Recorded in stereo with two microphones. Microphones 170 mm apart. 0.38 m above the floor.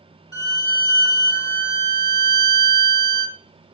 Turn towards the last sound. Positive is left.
turn(degrees=25)  # may be behind; listen again after turning